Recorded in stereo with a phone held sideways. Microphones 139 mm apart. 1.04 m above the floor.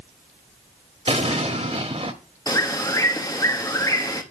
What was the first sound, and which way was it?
An explosion, 45° right (ahead or behind).